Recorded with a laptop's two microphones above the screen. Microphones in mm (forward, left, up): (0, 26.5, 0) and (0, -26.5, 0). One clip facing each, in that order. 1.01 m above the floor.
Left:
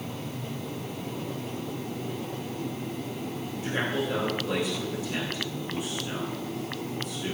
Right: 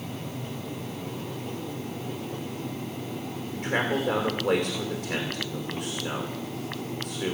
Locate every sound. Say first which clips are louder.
3.5 s a man speaking: right 3 dB; 55° right (ahead or behind), 2.5 m